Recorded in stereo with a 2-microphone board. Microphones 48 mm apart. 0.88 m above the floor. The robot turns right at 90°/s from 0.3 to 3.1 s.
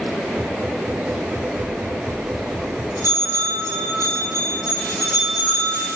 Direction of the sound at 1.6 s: 40° left (ahead or behind).